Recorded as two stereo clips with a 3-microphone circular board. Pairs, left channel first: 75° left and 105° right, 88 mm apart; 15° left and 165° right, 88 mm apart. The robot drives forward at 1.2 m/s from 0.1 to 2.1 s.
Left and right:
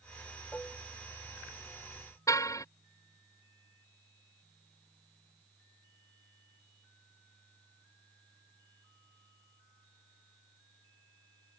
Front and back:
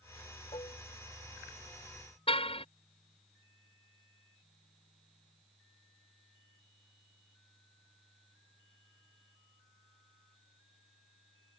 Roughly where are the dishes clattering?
Ahead.